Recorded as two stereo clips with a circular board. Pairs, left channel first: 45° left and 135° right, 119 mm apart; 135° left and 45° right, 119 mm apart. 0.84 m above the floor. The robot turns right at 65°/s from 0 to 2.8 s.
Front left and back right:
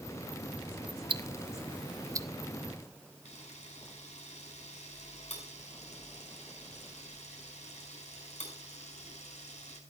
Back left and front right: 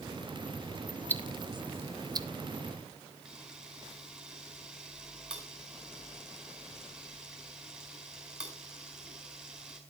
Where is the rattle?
No rattle in this recording.